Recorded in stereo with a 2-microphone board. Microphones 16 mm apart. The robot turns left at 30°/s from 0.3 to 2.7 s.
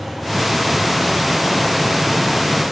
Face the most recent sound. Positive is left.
No sound to turn to.